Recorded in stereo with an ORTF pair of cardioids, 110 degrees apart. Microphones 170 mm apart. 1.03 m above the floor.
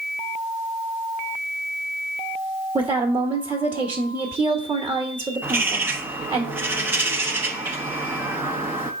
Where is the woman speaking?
25° right, 1.5 m.